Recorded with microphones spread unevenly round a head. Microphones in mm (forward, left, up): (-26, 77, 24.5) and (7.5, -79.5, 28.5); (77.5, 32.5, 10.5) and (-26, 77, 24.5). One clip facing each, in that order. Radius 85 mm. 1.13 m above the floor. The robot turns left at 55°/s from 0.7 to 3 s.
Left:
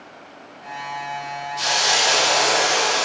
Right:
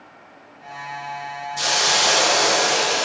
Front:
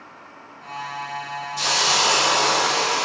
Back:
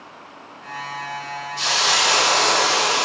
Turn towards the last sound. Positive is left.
turn(degrees=-130)